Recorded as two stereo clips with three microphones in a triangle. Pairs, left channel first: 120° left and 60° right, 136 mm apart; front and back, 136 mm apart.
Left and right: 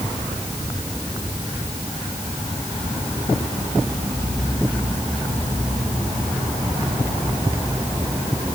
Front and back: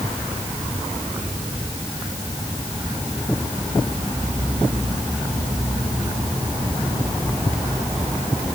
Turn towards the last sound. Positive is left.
No sound to turn to.